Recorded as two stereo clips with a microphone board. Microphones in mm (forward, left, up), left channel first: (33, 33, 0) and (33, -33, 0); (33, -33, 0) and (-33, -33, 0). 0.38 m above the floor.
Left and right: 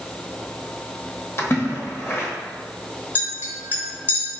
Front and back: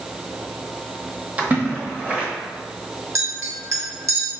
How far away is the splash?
About 0.8 m.